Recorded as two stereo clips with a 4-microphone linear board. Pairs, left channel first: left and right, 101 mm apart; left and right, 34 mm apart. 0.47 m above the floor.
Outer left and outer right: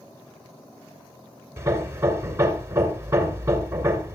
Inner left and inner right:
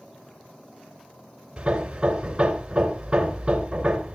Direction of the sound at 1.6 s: 25° right (ahead or behind).